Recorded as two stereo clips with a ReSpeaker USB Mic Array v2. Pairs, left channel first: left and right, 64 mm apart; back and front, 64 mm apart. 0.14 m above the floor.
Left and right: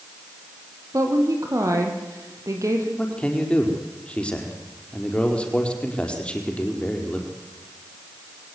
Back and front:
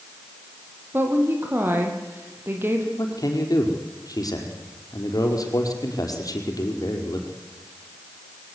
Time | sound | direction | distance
0.9 | a woman speaking | 55° right | 5 m
3.0 | a man speaking | 160° left | 5 m